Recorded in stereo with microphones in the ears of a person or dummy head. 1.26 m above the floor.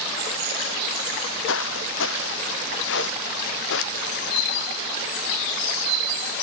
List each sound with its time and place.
1.1 s footsteps: 85° left; by 4.3 s 70° left (ahead or behind)